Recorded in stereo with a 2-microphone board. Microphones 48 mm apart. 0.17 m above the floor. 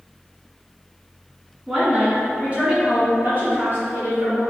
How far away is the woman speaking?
About 1.8 m.